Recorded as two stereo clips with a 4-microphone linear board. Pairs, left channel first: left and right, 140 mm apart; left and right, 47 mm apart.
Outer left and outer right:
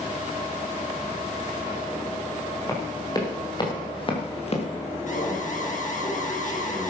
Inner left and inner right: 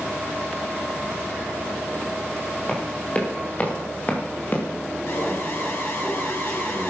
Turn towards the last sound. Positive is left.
turn(degrees=60)  # may be behind; listen again after turning